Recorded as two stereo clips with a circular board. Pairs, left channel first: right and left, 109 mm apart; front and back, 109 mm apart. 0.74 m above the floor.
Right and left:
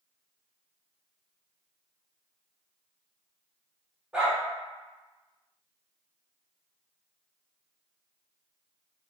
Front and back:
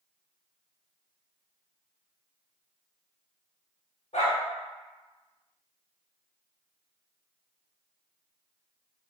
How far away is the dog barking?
About 0.8 m.